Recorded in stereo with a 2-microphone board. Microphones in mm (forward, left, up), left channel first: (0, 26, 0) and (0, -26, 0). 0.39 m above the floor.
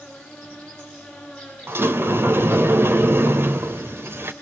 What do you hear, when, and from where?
0.0 s an insect: 15° left (ahead or behind), 9 m
1.7 s a sliding door: 50° right (ahead or behind), 1.2 m